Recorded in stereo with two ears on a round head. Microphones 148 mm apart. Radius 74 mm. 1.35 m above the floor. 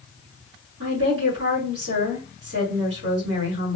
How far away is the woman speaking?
About 2 m.